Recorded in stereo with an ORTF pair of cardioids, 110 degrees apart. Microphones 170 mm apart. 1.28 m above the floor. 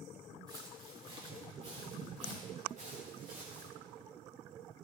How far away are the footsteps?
About 5.5 m.